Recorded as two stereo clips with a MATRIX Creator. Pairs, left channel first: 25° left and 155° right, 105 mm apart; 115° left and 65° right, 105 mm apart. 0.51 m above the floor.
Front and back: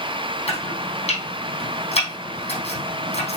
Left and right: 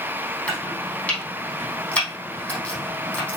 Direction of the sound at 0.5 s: 35° left.